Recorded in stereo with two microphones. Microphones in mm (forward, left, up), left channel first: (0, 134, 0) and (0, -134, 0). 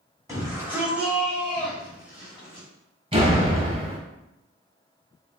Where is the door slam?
20° right (ahead or behind), 1.0 m.